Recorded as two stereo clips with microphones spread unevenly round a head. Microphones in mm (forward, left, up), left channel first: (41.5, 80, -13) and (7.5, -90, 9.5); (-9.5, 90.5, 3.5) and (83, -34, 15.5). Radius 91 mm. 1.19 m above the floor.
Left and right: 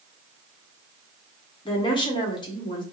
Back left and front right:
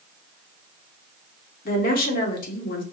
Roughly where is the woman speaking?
Behind left.